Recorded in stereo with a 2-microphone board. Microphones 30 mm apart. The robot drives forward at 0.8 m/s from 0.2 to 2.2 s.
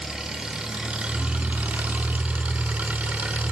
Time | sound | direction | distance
0.0 | an engine running | 25° right (ahead or behind) | 1.4 m